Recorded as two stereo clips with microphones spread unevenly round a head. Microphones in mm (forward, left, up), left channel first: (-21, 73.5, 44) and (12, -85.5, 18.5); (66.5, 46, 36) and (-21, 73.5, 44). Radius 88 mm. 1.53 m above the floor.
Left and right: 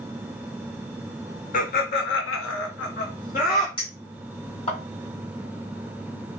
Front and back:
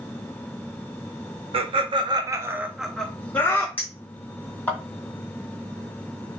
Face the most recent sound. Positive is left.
turn(degrees=50)